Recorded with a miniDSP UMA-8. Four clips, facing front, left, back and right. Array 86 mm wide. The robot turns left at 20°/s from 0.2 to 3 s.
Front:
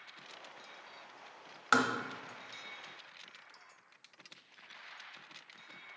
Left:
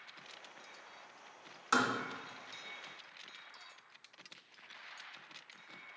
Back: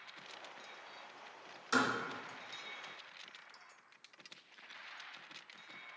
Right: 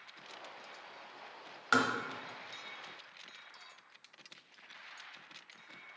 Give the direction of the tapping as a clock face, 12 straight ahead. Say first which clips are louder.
Right 2 dB, front 4 dB; 1 o'clock.